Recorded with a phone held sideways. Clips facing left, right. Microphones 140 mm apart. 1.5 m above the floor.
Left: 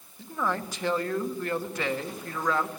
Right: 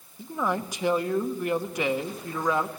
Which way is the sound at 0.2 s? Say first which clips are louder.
Right 2 dB; 15° right (ahead or behind).